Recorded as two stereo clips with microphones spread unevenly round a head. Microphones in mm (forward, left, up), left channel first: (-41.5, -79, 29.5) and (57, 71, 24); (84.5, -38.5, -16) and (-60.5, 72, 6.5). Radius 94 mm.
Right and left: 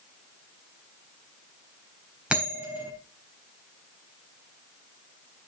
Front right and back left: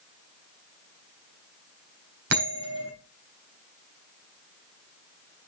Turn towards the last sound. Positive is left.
turn(degrees=140)